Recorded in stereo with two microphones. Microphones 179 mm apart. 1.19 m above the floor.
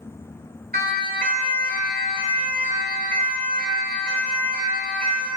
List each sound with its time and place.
0.7 s a siren: 55° right (ahead or behind), 3.5 m; by 5.3 s 50° right (ahead or behind), 6.5 m